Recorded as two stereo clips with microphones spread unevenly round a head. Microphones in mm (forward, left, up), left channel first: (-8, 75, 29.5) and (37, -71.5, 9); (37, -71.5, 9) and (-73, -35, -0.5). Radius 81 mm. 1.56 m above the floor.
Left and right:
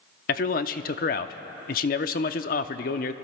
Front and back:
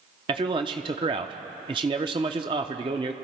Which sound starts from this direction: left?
A man speaking, at 0.3 s.